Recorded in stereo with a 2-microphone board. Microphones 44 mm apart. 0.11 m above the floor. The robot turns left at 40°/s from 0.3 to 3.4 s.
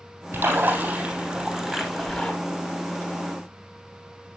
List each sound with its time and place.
0.3 s a splash: 120° right, 3.5 m; by 2.3 s 160° left, 3.5 m